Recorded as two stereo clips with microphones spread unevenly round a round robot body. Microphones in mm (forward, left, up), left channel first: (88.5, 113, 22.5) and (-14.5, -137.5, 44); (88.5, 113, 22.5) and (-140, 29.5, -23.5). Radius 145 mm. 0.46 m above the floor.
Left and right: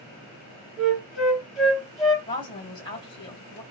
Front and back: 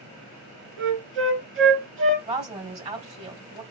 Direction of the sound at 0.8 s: 160° left.